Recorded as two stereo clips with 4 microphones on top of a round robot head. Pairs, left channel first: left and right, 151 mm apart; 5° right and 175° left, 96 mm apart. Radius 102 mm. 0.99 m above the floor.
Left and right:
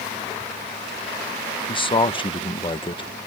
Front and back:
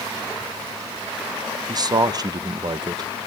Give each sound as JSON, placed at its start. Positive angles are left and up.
{"t": 1.7, "sound": "a man speaking", "azimuth_deg": 140, "distance_m": 0.9}